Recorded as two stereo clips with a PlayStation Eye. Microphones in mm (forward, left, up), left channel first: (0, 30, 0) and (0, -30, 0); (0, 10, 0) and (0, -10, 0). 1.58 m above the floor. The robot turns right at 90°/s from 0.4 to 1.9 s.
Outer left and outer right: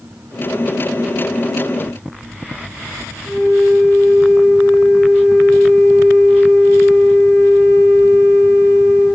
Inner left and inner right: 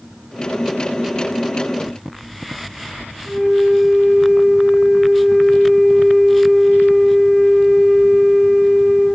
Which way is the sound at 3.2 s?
45° left (ahead or behind).